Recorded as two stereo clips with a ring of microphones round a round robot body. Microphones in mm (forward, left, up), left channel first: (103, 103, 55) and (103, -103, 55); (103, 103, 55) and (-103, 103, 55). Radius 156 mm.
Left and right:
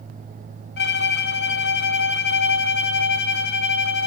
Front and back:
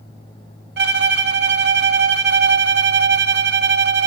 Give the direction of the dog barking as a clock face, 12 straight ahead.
I don't hear a dog barking.